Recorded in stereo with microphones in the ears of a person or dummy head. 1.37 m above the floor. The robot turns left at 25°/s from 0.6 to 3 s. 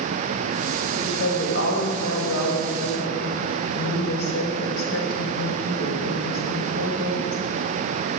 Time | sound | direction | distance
0.9 | a woman speaking | 135° left | 5 m